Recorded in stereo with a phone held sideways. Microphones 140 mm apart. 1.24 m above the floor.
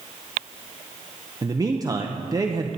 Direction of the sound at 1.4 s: 25° right (ahead or behind).